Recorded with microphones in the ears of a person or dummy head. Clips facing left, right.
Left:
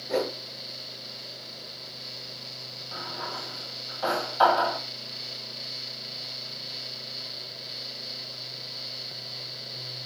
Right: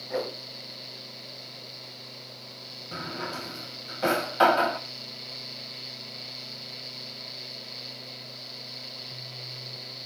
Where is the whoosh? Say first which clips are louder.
Left 4 dB; 60° left (ahead or behind), 3 m.